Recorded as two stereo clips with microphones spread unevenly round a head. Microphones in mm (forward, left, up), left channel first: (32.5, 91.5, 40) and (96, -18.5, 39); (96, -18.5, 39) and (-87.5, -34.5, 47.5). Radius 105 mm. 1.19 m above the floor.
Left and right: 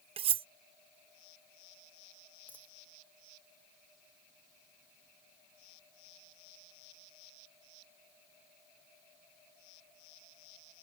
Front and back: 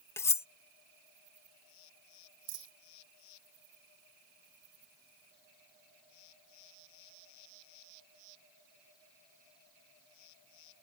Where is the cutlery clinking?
70° right.